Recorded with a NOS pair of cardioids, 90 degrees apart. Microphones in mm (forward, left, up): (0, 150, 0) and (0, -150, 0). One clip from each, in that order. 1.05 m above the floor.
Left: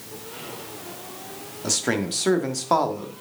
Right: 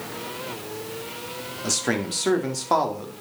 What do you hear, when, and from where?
1.6 s a man speaking: 5° left, 1.7 m